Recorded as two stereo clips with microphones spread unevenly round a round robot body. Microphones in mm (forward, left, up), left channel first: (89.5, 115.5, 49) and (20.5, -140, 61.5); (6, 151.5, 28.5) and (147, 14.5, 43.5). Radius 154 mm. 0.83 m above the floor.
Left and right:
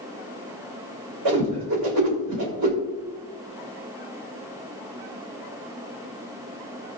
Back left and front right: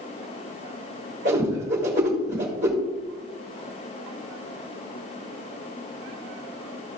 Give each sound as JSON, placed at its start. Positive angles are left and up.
{"t": 1.2, "sound": "a whoosh", "azimuth_deg": -95, "distance_m": 3.5}